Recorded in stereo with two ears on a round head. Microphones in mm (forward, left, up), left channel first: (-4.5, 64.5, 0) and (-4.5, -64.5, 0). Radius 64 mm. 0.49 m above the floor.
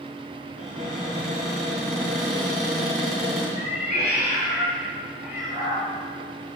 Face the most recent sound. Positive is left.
turn(degrees=60)  # may be behind; listen again after turning